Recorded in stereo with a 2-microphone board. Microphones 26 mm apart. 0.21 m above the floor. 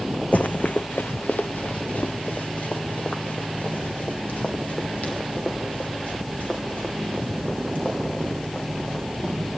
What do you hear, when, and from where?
0.3 s running footsteps: 70° left (ahead or behind), 0.7 m; by 9.4 s 50° left (ahead or behind), 6.5 m